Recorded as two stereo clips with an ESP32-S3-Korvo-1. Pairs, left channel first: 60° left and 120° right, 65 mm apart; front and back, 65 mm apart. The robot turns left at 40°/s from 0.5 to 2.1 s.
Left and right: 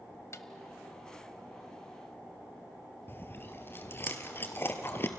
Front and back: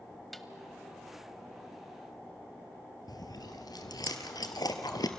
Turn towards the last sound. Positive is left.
turn(degrees=5)